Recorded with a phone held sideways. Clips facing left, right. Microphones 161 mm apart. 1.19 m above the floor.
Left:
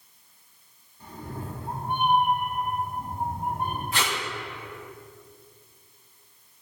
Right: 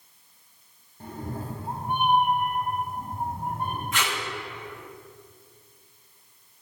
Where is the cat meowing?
60° right (ahead or behind), 1.1 m; by 3.8 s 20° left (ahead or behind), 3 m.